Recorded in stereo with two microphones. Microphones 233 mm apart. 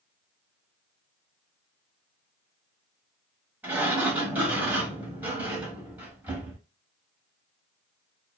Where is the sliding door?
5° right (ahead or behind), 0.9 m.